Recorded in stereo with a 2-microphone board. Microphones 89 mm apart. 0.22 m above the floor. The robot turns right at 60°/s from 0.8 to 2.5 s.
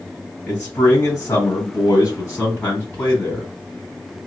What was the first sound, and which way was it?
A man speaking, 45° left.